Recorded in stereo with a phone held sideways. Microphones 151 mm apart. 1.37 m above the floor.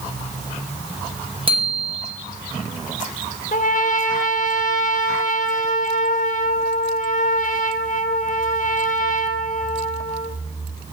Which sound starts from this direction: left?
A trumpet, at 3.5 s.